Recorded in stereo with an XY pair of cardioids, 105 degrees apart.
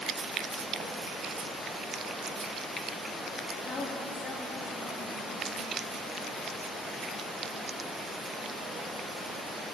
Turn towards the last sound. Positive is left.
turn(degrees=75)